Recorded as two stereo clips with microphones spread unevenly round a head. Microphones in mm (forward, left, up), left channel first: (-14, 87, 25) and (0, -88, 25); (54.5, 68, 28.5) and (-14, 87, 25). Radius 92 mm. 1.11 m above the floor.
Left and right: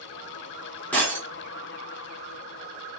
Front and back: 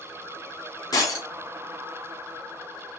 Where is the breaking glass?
15° left, 2.5 m.